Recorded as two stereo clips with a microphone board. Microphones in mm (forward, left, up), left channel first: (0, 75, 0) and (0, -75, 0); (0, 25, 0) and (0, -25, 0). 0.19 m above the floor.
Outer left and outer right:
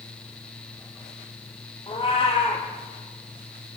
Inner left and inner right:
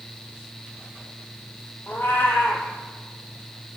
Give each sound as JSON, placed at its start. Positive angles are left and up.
{"t": 1.9, "sound": "a cat meowing", "side_deg": 35, "distance_m": 1.1}